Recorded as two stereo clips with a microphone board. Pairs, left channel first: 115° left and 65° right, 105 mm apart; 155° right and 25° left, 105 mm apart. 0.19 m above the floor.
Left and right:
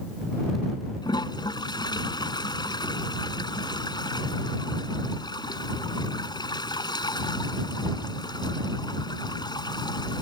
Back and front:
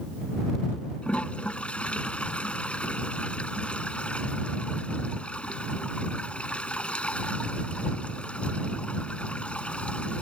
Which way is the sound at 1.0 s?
130° left.